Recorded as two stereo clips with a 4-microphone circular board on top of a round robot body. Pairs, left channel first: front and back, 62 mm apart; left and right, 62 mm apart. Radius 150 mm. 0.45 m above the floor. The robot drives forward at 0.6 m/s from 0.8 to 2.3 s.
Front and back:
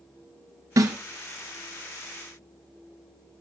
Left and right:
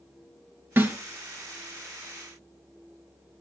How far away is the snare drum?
About 1.5 m.